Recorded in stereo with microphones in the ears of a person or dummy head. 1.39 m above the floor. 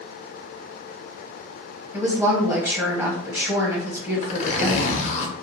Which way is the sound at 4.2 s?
40° left (ahead or behind).